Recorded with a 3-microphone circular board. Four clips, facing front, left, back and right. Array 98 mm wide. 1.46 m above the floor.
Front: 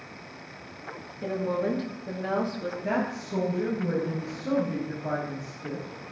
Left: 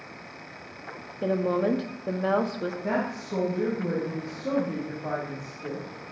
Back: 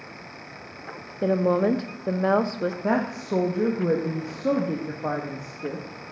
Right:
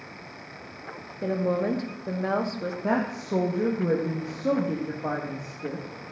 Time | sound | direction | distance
1.2 | a woman speaking | 165° left | 1.1 m
2.8 | a woman speaking | 160° right | 1.6 m